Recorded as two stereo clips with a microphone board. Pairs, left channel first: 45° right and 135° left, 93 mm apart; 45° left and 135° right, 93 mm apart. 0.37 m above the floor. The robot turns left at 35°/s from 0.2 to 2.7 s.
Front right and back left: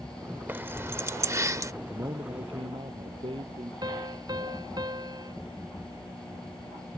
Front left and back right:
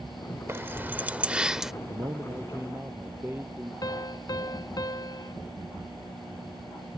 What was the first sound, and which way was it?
Keys jangling, 175° right.